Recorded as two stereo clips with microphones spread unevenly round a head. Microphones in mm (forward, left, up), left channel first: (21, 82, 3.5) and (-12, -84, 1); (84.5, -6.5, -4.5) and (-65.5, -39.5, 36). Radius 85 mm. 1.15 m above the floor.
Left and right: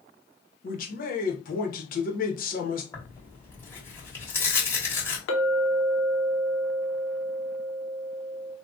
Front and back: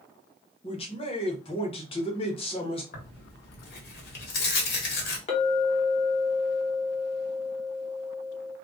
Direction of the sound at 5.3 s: 65° left.